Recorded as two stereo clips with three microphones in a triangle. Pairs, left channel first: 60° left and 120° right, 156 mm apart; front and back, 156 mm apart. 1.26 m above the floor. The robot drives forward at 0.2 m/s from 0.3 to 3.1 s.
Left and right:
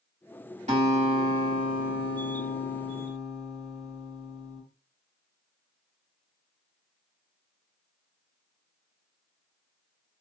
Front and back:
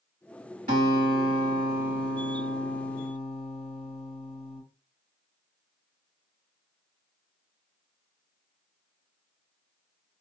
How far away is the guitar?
About 1.6 m.